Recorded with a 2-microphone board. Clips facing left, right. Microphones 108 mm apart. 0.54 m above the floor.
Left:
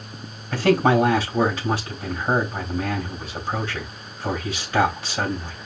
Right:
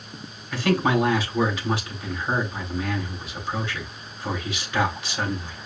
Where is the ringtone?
No ringtone in this recording.